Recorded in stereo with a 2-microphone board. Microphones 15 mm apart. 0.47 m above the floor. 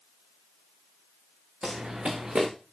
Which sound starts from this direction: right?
Running footsteps, at 1.6 s.